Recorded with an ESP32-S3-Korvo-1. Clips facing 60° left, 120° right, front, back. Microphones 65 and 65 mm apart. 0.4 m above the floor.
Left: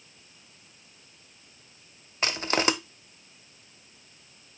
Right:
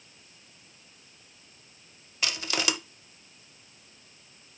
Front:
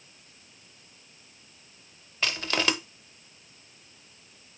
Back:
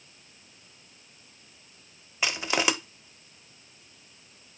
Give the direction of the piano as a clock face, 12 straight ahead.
No piano in this recording.